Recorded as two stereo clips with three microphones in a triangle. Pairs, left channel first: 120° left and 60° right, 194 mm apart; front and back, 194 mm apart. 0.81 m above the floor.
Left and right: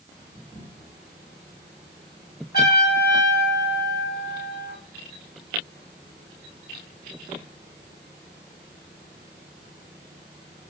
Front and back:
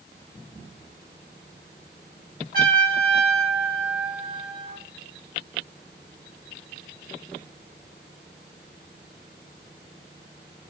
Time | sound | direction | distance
2.5 | a trumpet | 150° left | 1.5 m